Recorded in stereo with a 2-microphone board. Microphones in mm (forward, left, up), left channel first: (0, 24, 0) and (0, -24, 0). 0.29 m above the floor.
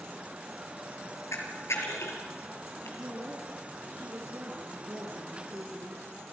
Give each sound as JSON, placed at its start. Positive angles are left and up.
{"t": 1.3, "sound": "a camera shutter", "side_deg": 80, "distance_m": 4.5}
{"t": 3.0, "sound": "a woman speaking", "side_deg": -60, "distance_m": 5.0}